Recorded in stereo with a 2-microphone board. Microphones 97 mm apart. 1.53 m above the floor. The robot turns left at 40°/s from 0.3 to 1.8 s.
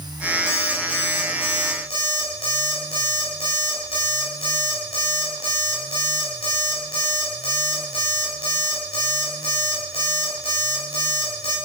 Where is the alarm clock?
140° left, 5 m; by 11.6 s 90° left, 5 m.